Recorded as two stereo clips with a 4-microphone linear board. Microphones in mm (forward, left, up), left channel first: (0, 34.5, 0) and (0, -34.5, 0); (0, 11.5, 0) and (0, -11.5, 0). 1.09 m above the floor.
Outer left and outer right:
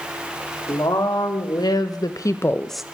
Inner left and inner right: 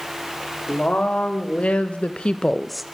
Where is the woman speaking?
85° left, 2 m; by 2.8 s 10° right (ahead or behind), 0.5 m.